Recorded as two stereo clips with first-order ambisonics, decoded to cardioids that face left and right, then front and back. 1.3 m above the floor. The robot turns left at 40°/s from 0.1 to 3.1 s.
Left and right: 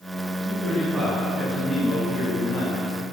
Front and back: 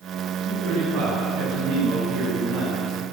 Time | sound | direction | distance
0.5 | a man speaking | 140° right | 8.5 m